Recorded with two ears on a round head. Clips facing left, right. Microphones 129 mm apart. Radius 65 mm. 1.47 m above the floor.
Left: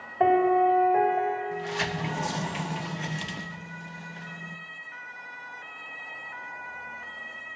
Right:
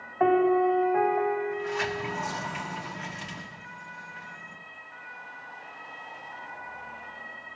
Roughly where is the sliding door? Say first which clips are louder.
Right 1 dB; left.